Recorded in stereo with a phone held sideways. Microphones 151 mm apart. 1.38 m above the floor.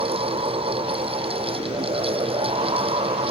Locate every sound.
0.0 s a fan: 40° right (ahead or behind)